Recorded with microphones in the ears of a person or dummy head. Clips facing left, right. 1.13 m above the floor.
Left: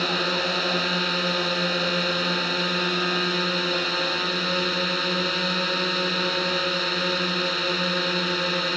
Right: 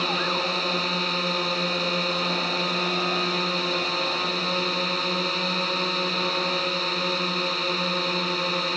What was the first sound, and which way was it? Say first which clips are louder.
A drone: left 1 dB; 10° left (ahead or behind).